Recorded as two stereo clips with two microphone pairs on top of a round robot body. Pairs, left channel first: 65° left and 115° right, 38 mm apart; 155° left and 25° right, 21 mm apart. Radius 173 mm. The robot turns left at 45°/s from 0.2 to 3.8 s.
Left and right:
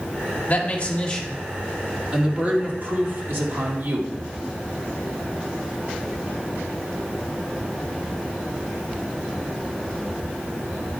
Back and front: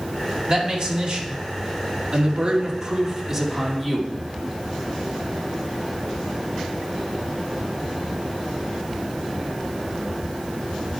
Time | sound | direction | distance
0.5 | a man speaking | 25° left | 2.5 m